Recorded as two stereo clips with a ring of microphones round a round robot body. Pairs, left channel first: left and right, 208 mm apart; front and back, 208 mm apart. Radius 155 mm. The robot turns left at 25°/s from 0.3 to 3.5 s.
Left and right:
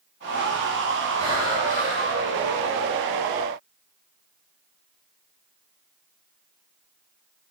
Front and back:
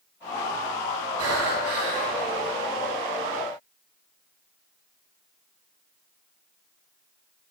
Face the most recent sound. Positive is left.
turn(degrees=140)